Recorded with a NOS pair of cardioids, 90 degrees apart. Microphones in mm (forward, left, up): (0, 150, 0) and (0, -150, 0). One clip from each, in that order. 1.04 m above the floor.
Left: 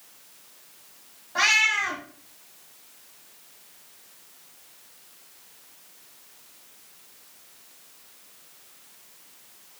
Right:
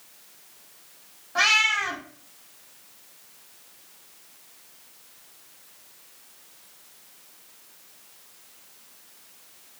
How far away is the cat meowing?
About 1.2 m.